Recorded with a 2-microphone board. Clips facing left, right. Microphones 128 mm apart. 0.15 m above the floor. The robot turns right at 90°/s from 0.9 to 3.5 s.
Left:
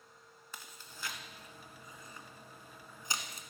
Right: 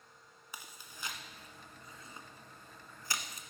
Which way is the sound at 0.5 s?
10° right (ahead or behind).